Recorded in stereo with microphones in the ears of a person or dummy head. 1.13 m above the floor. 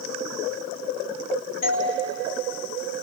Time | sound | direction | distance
1.6 | a doorbell | 55° left (ahead or behind) | 7 m